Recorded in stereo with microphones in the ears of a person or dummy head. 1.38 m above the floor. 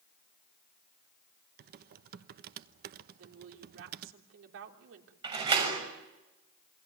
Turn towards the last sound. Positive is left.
turn(degrees=-25)  # may be behind; listen again after turning